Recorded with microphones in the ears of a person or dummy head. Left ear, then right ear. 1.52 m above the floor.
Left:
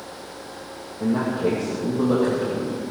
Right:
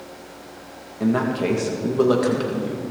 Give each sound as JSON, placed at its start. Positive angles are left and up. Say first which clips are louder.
{"t": 1.0, "sound": "a man speaking", "louder": "right 1 dB", "side_deg": -80, "distance_m": 1.7}